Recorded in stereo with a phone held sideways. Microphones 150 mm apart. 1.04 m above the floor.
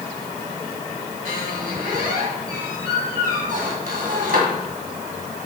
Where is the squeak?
70° right (ahead or behind), 2 m.